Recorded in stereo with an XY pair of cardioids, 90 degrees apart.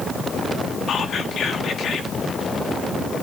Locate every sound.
0.9 s whispering: 65° left, 1.5 m